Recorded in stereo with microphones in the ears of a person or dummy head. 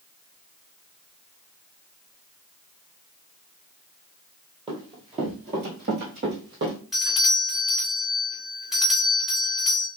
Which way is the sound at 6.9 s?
Centre (ahead or behind).